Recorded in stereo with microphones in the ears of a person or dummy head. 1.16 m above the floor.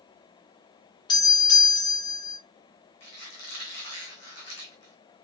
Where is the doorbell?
20° left (ahead or behind), 0.9 m.